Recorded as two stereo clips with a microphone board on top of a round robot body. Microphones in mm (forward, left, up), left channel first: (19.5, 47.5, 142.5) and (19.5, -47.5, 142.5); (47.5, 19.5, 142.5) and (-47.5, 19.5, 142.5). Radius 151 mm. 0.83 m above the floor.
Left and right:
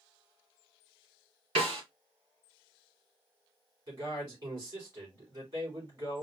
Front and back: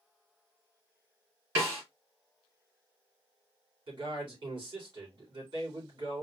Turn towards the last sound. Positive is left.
turn(degrees=-140)